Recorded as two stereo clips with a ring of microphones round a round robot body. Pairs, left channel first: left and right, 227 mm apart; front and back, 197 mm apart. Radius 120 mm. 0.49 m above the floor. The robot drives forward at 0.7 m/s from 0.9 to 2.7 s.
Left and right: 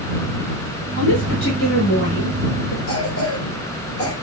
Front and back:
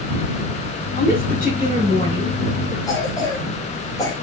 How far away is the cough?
About 2.5 m.